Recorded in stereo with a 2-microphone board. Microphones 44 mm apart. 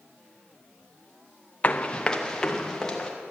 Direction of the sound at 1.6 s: 30° left (ahead or behind).